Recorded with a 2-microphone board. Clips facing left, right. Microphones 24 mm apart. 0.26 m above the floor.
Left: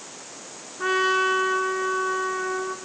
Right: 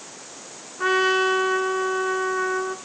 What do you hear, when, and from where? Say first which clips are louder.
0.8 s a trumpet: right 2 dB; 10° right (ahead or behind), 2 m